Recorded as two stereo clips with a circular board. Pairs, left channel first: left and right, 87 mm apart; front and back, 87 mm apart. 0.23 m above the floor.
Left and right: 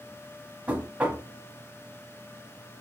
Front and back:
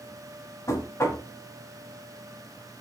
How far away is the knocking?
About 0.8 m.